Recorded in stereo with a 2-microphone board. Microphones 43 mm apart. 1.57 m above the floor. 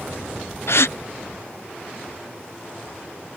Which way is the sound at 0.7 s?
70° left (ahead or behind).